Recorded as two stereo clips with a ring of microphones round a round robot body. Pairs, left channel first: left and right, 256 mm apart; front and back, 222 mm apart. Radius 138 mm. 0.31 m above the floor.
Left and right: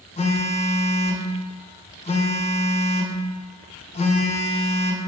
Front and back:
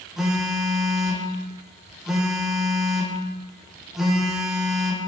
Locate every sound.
0.2 s a phone buzzing: 95° left, 0.6 m